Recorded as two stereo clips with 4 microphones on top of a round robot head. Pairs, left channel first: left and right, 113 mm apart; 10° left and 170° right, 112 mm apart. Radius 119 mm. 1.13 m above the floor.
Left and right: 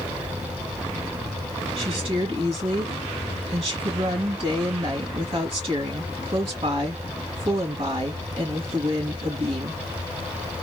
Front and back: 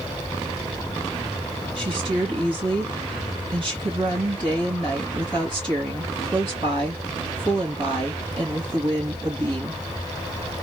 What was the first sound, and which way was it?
A woman speaking, 125° right.